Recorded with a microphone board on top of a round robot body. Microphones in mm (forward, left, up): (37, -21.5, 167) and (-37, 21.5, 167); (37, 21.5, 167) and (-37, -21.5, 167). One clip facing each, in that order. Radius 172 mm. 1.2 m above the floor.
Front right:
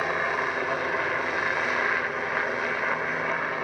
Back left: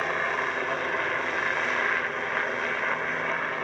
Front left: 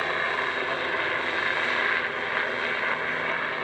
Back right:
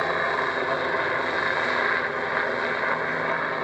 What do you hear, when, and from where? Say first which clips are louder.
0.0 s a helicopter: front right 1 dB, back right 3 dB; 110° right